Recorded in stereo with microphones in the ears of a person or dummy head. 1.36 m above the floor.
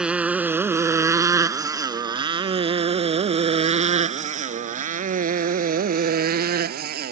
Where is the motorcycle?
5° right (ahead or behind); by 7.1 s 55° right (ahead or behind).